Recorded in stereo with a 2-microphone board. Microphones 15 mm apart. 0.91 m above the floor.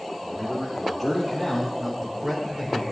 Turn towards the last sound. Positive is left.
turn(degrees=-35)  # may be behind; listen again after turning